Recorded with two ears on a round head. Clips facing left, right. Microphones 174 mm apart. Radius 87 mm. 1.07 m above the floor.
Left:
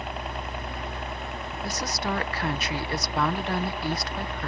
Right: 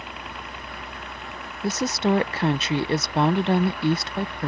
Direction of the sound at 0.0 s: 40° left (ahead or behind).